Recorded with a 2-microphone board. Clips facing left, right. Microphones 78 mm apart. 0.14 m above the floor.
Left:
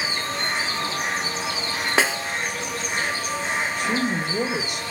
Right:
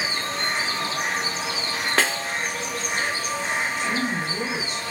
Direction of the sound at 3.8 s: 70° left (ahead or behind).